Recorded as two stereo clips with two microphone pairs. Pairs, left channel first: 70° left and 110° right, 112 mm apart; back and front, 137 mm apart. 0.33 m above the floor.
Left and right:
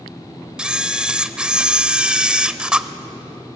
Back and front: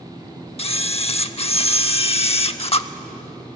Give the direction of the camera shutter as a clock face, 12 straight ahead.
6 o'clock.